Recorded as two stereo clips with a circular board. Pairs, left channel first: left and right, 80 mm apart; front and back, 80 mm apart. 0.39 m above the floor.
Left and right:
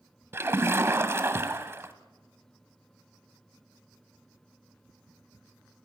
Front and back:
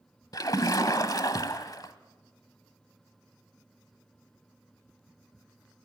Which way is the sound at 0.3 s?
35° right.